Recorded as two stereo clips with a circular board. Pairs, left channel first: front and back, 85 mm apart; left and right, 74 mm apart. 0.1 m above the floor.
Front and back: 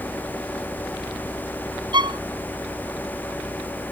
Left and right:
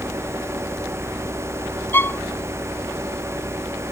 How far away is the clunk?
No clunk in this recording.